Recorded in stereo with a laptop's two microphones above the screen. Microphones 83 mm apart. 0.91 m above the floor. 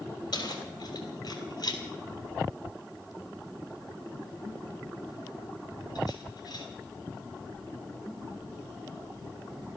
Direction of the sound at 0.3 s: 55° left (ahead or behind).